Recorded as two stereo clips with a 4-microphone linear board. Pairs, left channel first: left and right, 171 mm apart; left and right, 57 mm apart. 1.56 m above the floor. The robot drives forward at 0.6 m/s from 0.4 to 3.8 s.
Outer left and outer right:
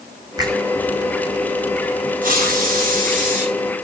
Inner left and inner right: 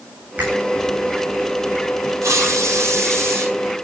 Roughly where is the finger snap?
Right.